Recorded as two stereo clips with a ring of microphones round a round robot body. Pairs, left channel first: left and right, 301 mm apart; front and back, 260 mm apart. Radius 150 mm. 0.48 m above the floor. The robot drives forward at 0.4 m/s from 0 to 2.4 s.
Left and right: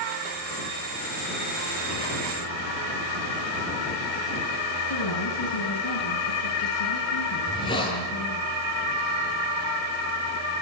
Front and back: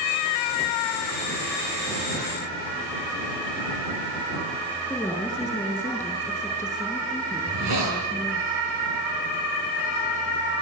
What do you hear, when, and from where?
4.9 s a woman speaking: 85° left, 8.5 m
7.4 s a hiss: 165° left, 9 m